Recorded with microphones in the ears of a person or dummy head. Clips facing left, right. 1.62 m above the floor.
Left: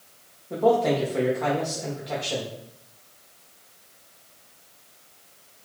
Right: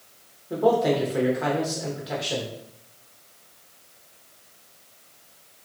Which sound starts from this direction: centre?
A man speaking, at 0.5 s.